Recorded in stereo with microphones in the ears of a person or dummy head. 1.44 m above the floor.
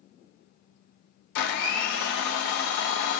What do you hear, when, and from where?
1.4 s a blender: 60° left (ahead or behind), 0.7 m